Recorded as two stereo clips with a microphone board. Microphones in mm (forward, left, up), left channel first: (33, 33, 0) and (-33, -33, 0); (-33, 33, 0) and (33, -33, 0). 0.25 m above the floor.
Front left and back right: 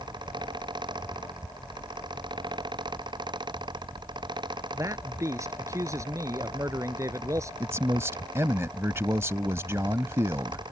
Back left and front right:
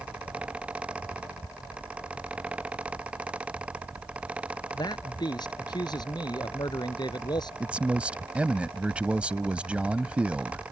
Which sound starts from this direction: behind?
A man speaking, at 4.7 s.